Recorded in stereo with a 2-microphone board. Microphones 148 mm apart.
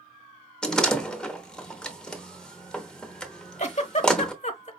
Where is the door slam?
5° left (ahead or behind), 0.9 m.